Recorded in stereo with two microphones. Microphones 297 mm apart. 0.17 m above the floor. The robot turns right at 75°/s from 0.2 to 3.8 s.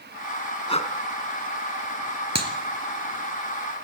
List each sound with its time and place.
0.7 s breathing: 15° left (ahead or behind), 2 m; by 0.9 s 25° left (ahead or behind), 2 m
2.4 s a clap: 60° right (ahead or behind), 2.5 m; by 2.5 s 50° right (ahead or behind), 2.5 m